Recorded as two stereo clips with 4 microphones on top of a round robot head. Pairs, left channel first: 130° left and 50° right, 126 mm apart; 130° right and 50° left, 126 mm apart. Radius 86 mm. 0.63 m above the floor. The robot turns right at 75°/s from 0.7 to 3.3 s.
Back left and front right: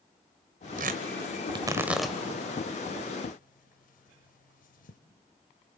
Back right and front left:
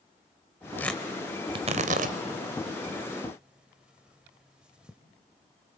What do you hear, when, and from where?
0.8 s tearing paper: 55° right, 1.2 m; by 5.0 s 135° left, 1.2 m